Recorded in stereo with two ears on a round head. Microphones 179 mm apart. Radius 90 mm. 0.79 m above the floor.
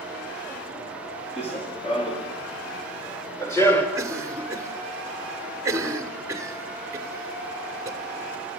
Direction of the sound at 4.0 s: 15° right (ahead or behind).